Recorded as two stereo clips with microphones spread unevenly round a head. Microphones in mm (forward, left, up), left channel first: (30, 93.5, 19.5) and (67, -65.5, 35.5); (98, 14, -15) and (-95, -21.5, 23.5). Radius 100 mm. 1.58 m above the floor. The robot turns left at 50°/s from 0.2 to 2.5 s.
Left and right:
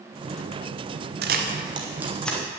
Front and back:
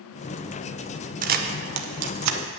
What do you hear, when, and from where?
1.2 s a camera shutter: 120° right, 0.9 m; by 2.5 s straight behind, 0.9 m